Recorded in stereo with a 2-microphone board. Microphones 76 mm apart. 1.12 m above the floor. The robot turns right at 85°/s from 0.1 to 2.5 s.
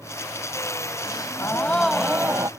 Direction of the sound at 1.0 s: 105° left.